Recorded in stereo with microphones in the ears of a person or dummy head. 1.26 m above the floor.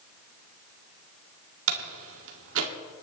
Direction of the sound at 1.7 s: 75° right (ahead or behind).